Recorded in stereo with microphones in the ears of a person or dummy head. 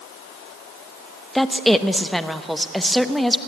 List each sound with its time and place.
1.4 s a woman speaking: centre (ahead or behind), 1.0 m